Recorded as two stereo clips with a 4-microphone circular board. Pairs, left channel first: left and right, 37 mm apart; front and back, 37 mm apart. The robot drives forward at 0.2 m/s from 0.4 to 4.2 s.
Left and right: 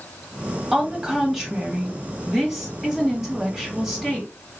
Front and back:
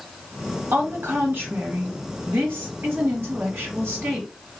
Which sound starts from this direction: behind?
A woman speaking, at 0.7 s.